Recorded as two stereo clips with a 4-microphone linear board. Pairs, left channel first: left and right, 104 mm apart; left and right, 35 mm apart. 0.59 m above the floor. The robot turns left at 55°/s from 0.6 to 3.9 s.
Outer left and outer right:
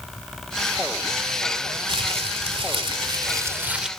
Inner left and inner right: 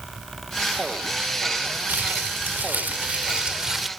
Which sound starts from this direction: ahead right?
Crumpling, at 1.9 s.